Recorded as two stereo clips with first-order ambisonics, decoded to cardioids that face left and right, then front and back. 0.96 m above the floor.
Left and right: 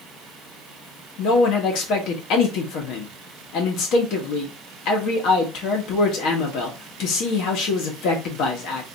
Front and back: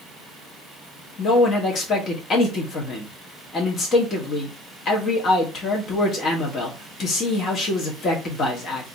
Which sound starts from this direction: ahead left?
A man speaking, at 1.2 s.